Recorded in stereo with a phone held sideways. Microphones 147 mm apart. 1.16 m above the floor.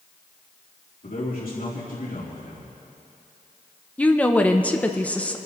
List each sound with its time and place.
1.0 s a man speaking: 75° left (ahead or behind), 3 m
4.0 s a woman speaking: 10° left (ahead or behind), 0.8 m